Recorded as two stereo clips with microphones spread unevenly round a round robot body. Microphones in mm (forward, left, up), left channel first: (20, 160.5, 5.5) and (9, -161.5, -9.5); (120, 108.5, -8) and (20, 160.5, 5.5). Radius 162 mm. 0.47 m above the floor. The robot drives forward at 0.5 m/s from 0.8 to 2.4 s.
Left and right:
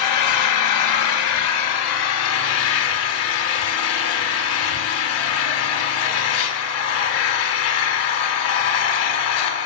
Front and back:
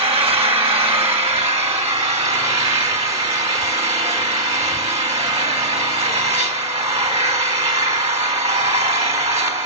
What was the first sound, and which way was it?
An engine running, 125° left.